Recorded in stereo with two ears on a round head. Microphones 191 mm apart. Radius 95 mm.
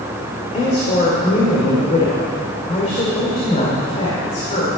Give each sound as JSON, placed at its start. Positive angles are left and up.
{"t": 0.5, "sound": "a woman speaking", "side_deg": 30, "distance_m": 2.0}